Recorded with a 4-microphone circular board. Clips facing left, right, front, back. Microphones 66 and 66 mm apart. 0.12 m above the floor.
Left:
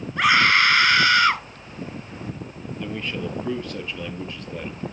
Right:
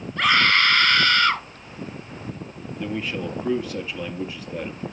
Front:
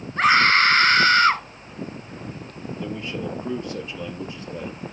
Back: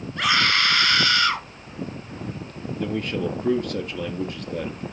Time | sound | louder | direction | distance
0.2 | a scream | left 1 dB, front 5 dB | 30° left | 2 m
2.8 | a man speaking | right 2 dB, back 5 dB | 170° right | 2.5 m